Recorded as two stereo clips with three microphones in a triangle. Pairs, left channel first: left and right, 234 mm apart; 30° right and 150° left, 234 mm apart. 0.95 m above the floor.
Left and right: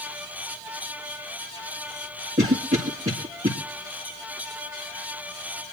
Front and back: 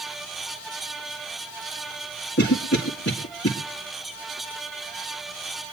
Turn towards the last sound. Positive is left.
turn(degrees=-35)